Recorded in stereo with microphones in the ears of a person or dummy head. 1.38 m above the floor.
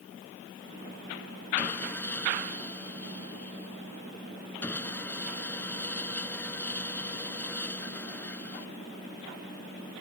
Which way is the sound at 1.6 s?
10° left (ahead or behind).